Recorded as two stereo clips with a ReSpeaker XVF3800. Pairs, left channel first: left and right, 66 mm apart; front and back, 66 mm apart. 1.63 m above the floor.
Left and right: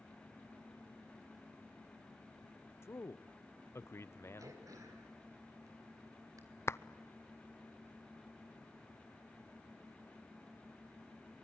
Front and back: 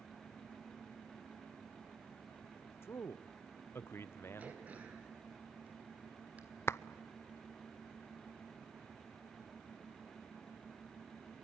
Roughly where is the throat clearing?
Behind right.